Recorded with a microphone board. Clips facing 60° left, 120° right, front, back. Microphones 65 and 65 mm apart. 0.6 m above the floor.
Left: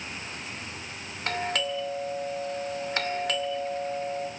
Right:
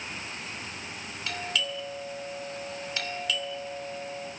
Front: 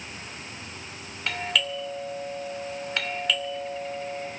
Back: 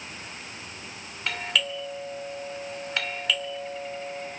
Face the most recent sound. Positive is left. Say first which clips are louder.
# left 4 dB, front 1 dB
turn(degrees=90)